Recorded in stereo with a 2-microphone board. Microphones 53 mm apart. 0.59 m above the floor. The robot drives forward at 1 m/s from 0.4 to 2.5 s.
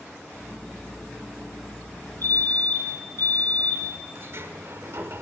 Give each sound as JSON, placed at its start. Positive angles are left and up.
{"t": 2.2, "sound": "a fire alarm", "side_deg": 45, "distance_m": 2.5}
{"t": 4.2, "sound": "a sliding door", "side_deg": -55, "distance_m": 1.3}